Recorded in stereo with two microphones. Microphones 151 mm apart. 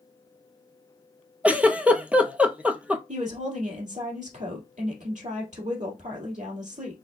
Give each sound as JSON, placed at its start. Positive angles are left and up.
{"t": 1.4, "sound": "a giggle", "side_deg": -10, "distance_m": 0.6}
{"t": 3.1, "sound": "a woman speaking", "side_deg": -60, "distance_m": 2.5}